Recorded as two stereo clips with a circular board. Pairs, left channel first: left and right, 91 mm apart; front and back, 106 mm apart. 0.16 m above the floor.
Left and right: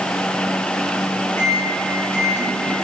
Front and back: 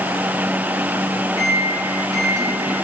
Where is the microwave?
140° left, 1.6 m.